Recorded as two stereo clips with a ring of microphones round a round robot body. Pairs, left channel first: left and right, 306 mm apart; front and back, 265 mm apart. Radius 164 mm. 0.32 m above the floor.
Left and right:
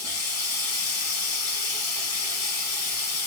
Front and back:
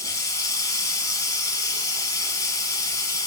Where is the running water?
75° left, 3.5 m.